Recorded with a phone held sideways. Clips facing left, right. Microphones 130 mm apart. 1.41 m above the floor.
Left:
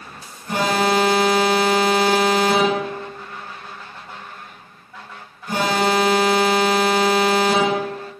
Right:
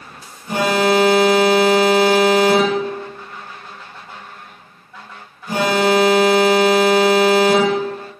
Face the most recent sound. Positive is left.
turn(degrees=-10)  # may be behind; listen again after turning